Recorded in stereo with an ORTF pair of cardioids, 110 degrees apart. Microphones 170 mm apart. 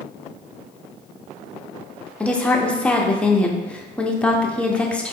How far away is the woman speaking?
About 0.6 m.